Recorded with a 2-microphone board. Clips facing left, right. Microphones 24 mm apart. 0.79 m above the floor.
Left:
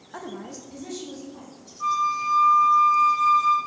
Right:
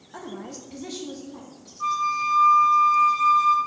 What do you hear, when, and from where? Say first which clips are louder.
0.1 s a woman speaking: even; 25° left (ahead or behind), 0.9 m; by 1.7 s 60° right (ahead or behind), 2 m
1.8 s a flute: even; 5° right (ahead or behind), 1.1 m